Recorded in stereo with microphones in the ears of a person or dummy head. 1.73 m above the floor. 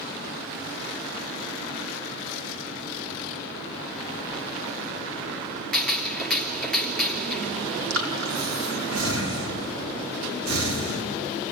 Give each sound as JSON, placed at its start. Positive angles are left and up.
{"t": 5.7, "sound": "a gunshot", "side_deg": 0, "distance_m": 2.5}
{"t": 7.9, "sound": "breathing", "side_deg": -75, "distance_m": 3.0}